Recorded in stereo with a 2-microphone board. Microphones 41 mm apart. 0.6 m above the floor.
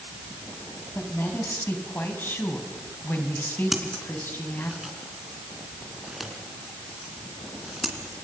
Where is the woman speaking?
65° left (ahead or behind), 5 m.